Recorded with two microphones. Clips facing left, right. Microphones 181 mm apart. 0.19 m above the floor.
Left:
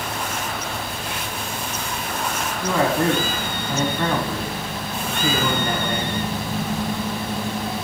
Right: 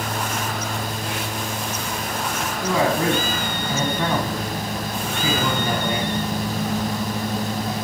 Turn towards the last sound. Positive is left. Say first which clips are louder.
# left 1 dB
turn(degrees=-10)  # may be behind; listen again after turning